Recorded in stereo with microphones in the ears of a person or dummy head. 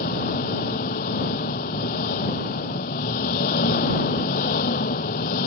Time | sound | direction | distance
0.0 | an engine running | 45° left (ahead or behind) | ?